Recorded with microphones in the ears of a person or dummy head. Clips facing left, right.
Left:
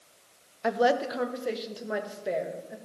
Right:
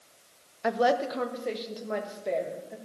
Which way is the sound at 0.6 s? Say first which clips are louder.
Even; centre (ahead or behind).